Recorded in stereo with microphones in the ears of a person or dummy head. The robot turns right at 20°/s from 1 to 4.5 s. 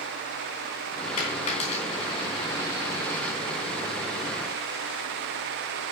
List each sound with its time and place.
1.2 s a dropped coin: 45° left (ahead or behind), 3 m; by 3.4 s 5° left (ahead or behind), 3 m